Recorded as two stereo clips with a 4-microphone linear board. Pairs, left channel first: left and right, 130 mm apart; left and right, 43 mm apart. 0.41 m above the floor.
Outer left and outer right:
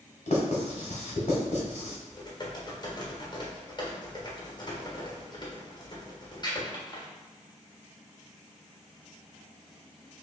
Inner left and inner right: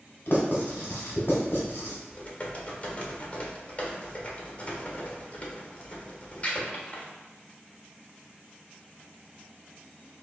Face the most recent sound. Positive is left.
turn(degrees=35)  # may be behind; listen again after turning